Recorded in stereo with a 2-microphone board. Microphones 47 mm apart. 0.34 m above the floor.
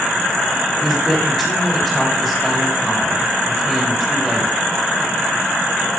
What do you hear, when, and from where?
0.8 s a woman speaking: 5° left (ahead or behind), 1.8 m